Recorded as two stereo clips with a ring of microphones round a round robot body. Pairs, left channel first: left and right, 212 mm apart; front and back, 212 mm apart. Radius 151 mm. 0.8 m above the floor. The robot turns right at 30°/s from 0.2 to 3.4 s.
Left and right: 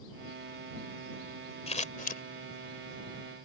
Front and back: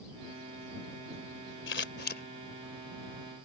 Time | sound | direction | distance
1.7 | scissors | 30° left | ?